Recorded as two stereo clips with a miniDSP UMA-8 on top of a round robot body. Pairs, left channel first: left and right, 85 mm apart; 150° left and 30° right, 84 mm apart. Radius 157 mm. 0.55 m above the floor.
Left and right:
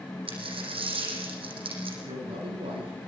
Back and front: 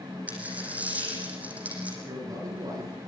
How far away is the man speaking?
About 9.5 m.